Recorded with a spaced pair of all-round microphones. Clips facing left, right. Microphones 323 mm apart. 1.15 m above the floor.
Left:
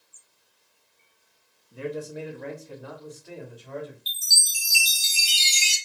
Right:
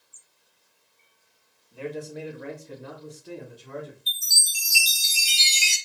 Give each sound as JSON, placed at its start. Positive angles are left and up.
{"t": 1.7, "sound": "a man speaking", "side_deg": 25, "distance_m": 0.7}
{"t": 4.1, "sound": "a chime", "side_deg": 45, "distance_m": 0.8}